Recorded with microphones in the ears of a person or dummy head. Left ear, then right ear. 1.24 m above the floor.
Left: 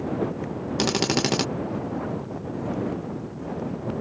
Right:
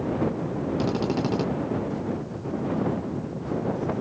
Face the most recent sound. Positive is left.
turn(degrees=55)  # may be behind; listen again after turning